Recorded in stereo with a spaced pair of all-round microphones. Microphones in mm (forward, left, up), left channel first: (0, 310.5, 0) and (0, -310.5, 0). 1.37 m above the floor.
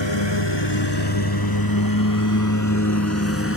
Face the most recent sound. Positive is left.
turn(degrees=20)  # may be behind; listen again after turning